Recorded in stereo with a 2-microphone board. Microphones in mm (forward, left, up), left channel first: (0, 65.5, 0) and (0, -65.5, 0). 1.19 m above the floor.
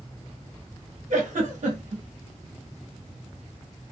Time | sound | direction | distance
1.1 | a giggle | 70° right (ahead or behind) | 1.0 m